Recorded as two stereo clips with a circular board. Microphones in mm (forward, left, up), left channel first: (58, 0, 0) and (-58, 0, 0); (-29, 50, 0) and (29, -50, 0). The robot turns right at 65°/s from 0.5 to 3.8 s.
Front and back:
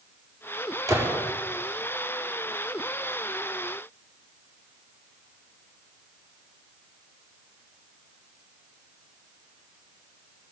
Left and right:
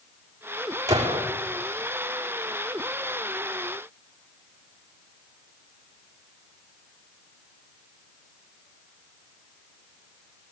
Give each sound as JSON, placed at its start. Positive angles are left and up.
{"t": 0.9, "sound": "a gunshot", "azimuth_deg": -120, "distance_m": 5.0}